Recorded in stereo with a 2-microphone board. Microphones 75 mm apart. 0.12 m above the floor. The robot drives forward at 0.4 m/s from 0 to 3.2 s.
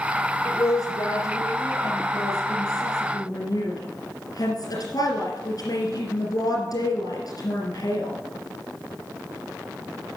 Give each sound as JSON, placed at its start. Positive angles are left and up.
{"t": 0.5, "sound": "a woman speaking", "side_deg": 50, "distance_m": 2.5}